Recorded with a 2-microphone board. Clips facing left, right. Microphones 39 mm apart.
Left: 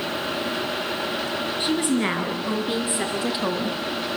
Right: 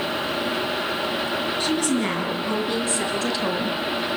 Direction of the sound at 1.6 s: 20° left (ahead or behind).